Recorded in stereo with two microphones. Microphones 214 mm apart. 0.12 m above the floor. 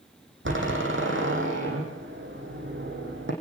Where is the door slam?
65° right (ahead or behind), 5 m.